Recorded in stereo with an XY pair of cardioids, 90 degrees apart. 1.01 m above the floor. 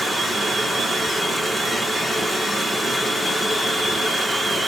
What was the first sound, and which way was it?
Running water, 10° left.